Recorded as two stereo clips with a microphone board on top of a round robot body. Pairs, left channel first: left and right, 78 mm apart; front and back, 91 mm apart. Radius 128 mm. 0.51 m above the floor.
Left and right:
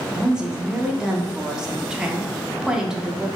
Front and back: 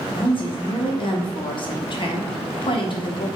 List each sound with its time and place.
0.1 s a woman speaking: 10° right, 1.0 m